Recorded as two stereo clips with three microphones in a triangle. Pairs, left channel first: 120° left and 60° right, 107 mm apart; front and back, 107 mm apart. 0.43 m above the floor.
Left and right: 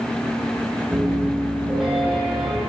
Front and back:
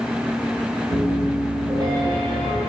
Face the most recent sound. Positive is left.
turn(degrees=-145)